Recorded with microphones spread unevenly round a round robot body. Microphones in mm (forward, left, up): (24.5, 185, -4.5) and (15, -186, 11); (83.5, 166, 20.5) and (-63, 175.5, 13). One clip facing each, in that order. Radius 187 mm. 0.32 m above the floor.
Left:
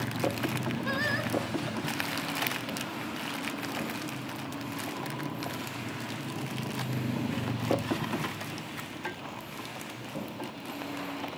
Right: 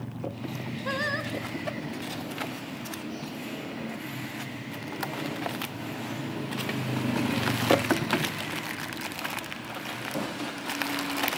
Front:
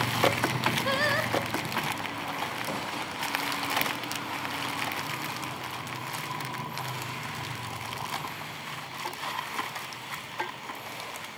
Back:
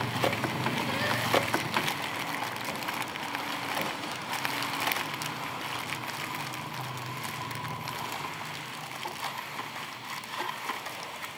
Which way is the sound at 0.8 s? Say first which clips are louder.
Even, front 3 dB; 5° left.